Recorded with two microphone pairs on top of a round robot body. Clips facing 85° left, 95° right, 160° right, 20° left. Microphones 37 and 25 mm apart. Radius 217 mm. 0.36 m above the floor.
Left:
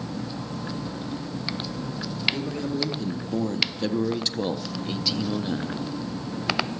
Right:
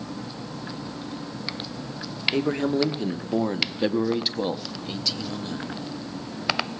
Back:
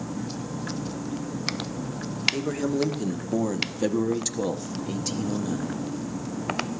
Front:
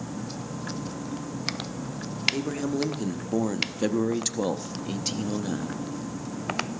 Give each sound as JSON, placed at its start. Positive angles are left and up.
{"t": 2.3, "sound": "a man speaking", "azimuth_deg": -70, "distance_m": 1.9}